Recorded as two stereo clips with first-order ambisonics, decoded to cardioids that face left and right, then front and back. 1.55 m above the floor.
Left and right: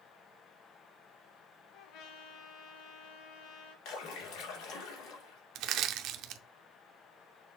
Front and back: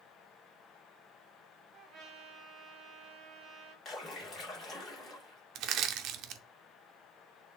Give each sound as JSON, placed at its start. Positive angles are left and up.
{"t": 1.7, "sound": "a trumpet", "azimuth_deg": 120, "distance_m": 2.5}
{"t": 3.9, "sound": "a splash", "azimuth_deg": 65, "distance_m": 2.5}
{"t": 5.5, "sound": "crushing", "azimuth_deg": -135, "distance_m": 0.7}